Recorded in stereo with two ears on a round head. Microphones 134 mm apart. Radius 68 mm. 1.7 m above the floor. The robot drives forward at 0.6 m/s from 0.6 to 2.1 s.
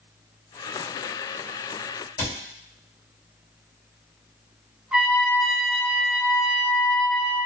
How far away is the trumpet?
About 0.9 m.